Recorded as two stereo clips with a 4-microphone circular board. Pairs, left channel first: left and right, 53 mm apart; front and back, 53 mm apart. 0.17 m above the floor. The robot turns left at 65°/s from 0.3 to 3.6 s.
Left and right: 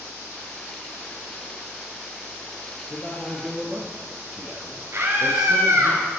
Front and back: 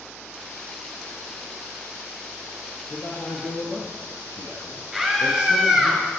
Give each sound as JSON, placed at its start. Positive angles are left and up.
{"t": 2.9, "sound": "a man speaking", "azimuth_deg": 35, "distance_m": 3.0}
{"t": 4.9, "sound": "a scream", "azimuth_deg": -90, "distance_m": 3.0}